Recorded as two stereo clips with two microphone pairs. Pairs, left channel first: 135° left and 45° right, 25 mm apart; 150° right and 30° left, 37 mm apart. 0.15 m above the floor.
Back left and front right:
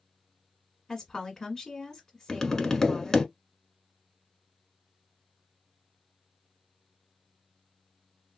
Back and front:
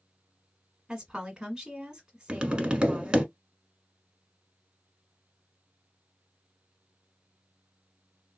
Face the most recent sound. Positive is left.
turn(degrees=80)